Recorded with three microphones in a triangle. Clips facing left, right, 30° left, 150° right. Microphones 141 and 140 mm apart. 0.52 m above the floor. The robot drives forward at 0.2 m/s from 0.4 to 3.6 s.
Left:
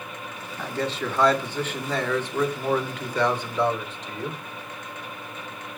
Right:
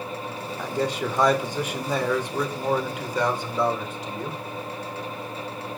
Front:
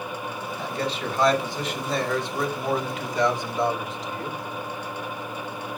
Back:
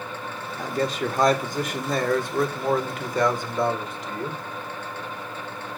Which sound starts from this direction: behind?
A man speaking, at 0.6 s.